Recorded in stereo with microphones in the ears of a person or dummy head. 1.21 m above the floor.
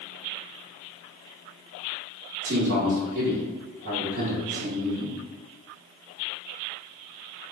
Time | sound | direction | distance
2.4 | a man speaking | 60° right (ahead or behind) | 0.9 m